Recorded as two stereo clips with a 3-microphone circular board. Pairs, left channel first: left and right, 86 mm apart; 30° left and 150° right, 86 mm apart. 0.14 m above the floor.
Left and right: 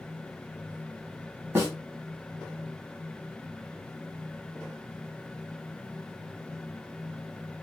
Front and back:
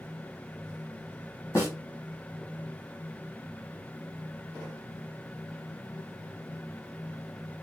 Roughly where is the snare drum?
Ahead right.